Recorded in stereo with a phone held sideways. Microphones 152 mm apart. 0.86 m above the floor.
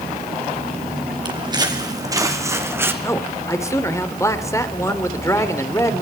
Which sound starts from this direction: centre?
A man speaking, at 3.0 s.